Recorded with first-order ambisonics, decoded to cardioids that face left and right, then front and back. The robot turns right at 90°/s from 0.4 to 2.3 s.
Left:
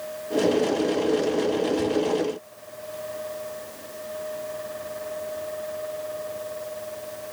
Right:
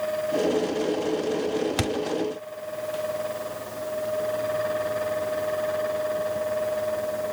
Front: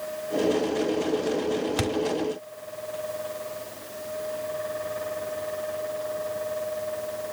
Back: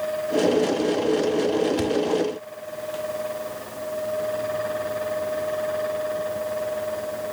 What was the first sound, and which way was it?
A thud, 70° right.